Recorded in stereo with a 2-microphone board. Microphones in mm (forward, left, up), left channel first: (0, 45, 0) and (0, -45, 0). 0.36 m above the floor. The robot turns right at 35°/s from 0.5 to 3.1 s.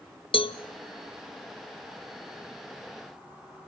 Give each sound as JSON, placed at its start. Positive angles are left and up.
{"t": 0.3, "sound": "a cowbell", "side_deg": 75, "distance_m": 0.5}